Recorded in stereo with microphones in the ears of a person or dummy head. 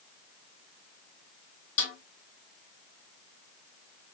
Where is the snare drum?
40° left (ahead or behind), 1.8 m.